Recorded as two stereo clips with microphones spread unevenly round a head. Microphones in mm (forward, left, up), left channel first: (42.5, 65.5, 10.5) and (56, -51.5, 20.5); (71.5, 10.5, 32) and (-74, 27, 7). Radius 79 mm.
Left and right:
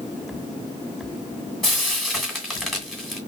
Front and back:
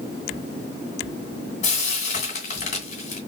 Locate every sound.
1.6 s frying: 5° left, 2.5 m